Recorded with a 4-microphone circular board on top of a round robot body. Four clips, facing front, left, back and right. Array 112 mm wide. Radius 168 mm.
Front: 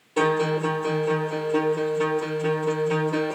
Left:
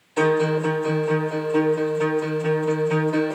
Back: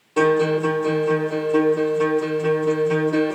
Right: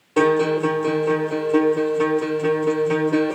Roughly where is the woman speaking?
I don't hear a woman speaking.